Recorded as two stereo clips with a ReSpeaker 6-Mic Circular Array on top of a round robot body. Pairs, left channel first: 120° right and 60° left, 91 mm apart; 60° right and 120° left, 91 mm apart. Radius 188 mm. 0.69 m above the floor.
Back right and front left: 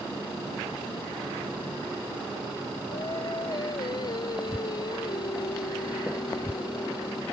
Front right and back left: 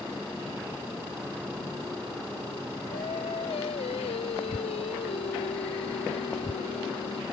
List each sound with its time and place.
2.9 s singing: 75° right